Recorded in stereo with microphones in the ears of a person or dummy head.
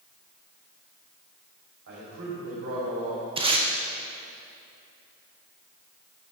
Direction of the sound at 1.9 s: 65° right (ahead or behind).